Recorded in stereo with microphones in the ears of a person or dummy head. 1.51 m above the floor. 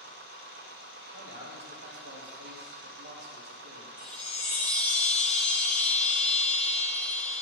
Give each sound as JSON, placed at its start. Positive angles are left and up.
{"t": 0.0, "sound": "a machine running", "side_deg": -40, "distance_m": 1.4}
{"t": 1.1, "sound": "a man speaking", "side_deg": -80, "distance_m": 3.5}
{"t": 4.0, "sound": "a chime", "side_deg": 15, "distance_m": 3.0}